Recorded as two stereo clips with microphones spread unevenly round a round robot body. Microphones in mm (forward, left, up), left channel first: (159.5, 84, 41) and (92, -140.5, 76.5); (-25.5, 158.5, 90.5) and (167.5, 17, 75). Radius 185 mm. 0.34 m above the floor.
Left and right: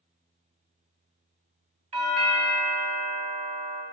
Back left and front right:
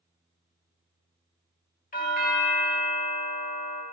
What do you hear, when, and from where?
1.9 s a doorbell: 170° right, 1.9 m